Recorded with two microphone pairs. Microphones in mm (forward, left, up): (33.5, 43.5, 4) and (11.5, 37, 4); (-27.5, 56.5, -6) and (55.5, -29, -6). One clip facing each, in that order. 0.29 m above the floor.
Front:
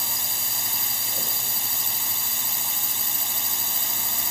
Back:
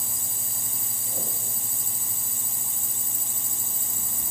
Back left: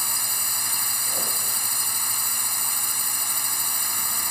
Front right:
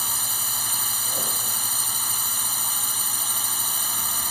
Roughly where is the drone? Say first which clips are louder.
Front 3 dB, front right 1 dB; ahead left.